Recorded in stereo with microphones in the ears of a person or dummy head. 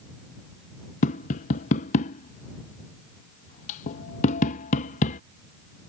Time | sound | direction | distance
1.0 | tapping | 40° left (ahead or behind) | ?